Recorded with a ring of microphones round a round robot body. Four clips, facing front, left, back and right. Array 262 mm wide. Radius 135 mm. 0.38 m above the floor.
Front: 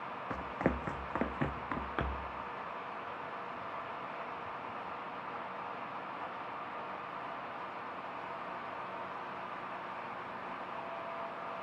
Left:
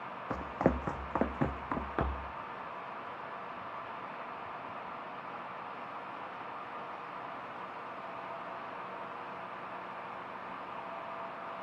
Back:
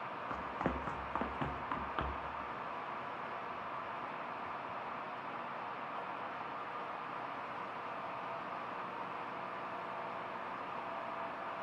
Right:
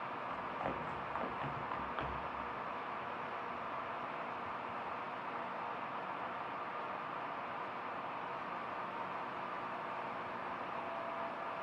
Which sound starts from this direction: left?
Running footsteps, at 0.3 s.